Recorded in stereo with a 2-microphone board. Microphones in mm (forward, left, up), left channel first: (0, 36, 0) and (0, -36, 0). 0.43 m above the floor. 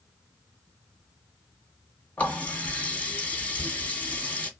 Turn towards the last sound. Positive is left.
turn(degrees=20)  # may be behind; listen again after turning